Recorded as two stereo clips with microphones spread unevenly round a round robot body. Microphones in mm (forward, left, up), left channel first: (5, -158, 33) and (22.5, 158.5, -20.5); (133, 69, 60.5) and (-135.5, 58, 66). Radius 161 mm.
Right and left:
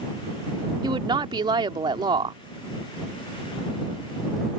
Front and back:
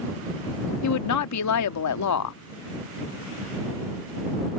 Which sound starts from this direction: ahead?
A woman speaking, at 0.8 s.